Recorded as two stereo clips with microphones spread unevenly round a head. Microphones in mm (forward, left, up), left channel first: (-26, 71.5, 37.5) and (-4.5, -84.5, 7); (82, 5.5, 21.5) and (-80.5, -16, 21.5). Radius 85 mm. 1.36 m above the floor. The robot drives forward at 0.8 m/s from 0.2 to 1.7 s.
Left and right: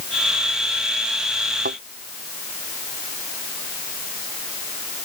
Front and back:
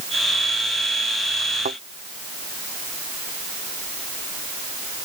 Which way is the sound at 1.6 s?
120° right.